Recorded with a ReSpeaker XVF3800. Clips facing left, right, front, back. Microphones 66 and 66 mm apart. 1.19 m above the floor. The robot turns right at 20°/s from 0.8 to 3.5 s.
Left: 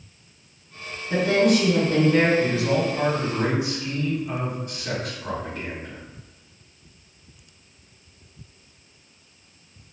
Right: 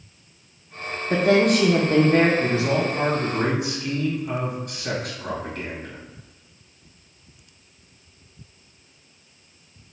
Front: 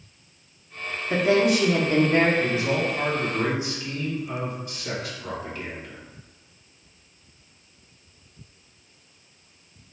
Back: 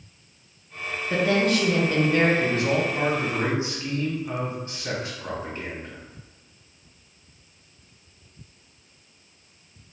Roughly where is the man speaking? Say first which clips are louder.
Even, back 1 dB; behind right.